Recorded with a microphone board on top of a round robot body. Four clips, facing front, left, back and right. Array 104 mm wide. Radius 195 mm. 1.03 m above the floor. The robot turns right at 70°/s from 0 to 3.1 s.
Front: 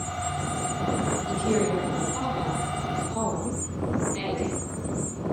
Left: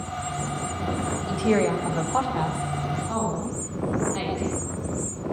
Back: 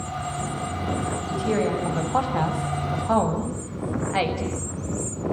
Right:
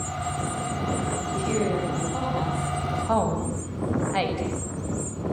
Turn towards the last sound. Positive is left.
turn(degrees=-150)